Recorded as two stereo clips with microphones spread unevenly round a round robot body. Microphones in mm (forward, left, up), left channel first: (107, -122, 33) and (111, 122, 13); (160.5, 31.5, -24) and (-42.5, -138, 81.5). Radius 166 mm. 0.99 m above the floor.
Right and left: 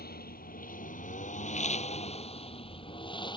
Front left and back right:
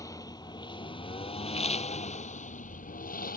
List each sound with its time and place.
0.0 s a lawn mower: 40° right; by 3.4 s 20° right